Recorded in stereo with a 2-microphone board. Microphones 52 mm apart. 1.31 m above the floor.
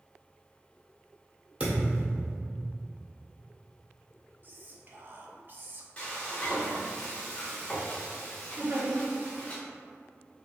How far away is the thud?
About 1.7 m.